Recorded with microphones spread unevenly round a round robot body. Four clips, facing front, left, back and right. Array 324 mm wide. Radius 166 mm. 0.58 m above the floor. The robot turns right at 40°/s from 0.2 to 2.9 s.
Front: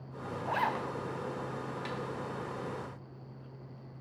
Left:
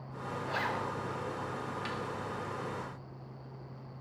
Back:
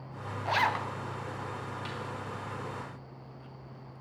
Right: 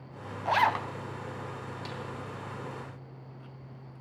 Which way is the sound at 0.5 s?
120° right.